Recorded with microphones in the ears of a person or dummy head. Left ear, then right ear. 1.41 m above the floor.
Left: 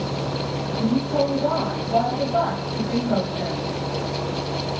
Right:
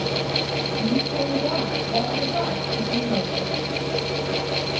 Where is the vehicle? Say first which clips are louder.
Right 3 dB; 30° left (ahead or behind).